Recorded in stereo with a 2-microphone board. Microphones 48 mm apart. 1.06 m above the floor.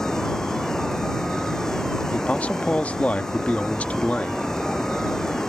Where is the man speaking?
30° left (ahead or behind).